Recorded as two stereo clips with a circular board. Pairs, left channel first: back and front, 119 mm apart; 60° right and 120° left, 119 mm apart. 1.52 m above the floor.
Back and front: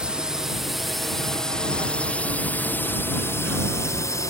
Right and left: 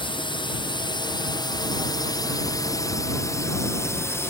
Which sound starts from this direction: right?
A drone, at 0.0 s.